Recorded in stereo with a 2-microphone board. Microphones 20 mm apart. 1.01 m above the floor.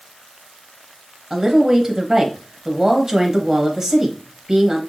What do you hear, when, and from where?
1.3 s a woman speaking: 35° right (ahead or behind), 1.1 m